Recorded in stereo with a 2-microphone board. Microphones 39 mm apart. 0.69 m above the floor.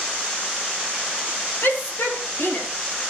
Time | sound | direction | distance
1.6 | a shout | 75° left (ahead or behind) | 7 m